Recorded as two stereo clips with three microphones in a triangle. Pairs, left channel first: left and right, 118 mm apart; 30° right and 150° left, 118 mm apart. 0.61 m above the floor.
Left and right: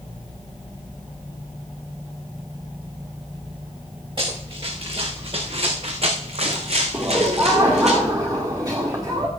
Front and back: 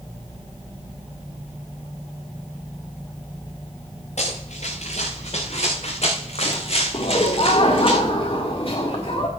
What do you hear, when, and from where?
4.2 s running footsteps: 50° right, 4.5 m; by 7.9 s 75° right, 3.5 m
6.9 s laughter: 40° right, 1.8 m